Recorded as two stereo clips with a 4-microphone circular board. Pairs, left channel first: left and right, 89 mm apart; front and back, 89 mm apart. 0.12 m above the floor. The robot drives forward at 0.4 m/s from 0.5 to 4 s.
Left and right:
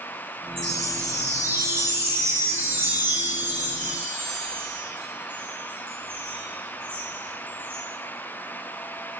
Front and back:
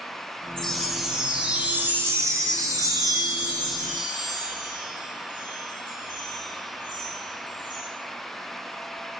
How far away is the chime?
About 1.0 m.